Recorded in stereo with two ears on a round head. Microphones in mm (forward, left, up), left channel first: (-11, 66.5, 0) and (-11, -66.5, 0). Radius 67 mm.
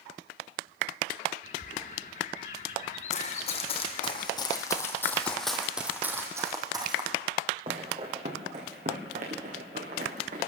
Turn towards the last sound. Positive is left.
turn(degrees=-60)  # may be behind; listen again after turning